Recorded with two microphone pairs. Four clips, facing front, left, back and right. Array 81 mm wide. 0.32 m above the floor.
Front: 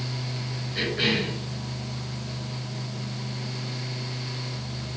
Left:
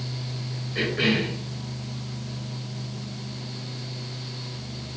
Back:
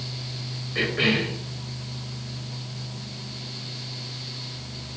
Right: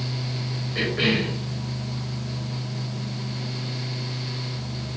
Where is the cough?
165° right, 1.5 m.